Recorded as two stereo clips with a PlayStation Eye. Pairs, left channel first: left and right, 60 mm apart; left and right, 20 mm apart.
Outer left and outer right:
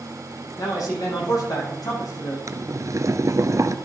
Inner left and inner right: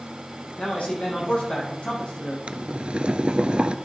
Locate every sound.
0.6 s a man speaking: 75° left (ahead or behind), 6.5 m; by 2.4 s 70° left (ahead or behind), 6.5 m
2.5 s boiling: 60° right (ahead or behind), 0.7 m